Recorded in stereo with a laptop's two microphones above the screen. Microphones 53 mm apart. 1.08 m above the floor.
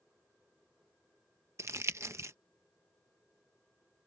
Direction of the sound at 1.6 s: 60° right (ahead or behind).